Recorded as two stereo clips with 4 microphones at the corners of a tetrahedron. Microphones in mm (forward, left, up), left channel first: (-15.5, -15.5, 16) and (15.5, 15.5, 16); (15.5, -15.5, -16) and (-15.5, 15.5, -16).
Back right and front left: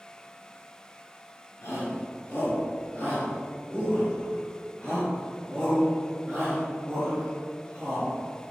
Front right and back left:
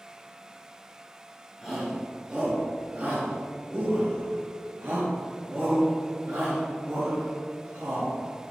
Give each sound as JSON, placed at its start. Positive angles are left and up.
{"t": 1.6, "sound": "a shout", "azimuth_deg": -140, "distance_m": 2.5}